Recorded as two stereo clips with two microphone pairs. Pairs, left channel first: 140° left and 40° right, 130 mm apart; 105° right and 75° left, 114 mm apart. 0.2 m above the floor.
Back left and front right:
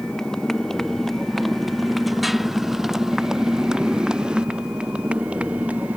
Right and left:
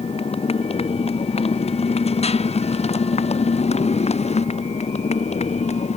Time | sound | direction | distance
0.0 | a motorcycle | 135° right | ?